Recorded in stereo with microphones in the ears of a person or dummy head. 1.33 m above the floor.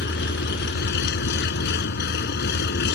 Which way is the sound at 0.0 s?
60° left (ahead or behind).